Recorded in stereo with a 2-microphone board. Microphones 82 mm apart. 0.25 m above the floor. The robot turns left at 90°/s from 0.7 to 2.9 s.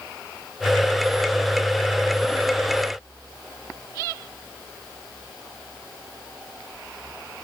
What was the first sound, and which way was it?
Only background noise.